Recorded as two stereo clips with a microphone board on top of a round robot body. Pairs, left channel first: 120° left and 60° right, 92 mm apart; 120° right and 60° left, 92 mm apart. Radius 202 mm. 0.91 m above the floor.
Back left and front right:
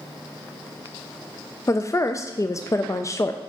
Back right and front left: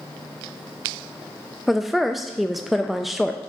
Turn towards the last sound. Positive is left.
turn(degrees=145)